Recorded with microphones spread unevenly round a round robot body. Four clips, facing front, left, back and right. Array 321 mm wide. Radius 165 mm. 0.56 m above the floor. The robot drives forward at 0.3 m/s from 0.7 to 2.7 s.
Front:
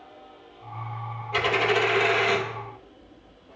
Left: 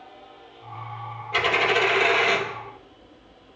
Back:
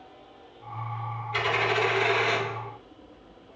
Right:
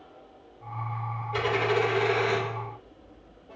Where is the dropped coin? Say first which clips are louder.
Left 3 dB, front 3 dB; 70° left, 4 m; by 2.5 s 75° left, 4 m.